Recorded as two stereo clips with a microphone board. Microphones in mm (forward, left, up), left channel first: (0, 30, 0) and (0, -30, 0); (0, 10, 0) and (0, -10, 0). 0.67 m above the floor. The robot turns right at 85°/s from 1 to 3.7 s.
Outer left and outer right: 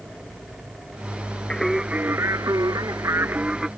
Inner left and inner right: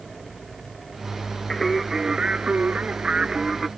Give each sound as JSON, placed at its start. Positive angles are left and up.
{"t": 1.5, "sound": "singing", "azimuth_deg": 170}